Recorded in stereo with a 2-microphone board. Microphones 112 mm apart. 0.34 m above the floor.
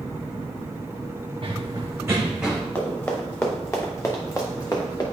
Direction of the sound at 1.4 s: 45° right (ahead or behind).